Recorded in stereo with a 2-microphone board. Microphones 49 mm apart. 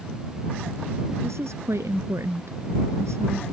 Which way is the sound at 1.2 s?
75° right (ahead or behind).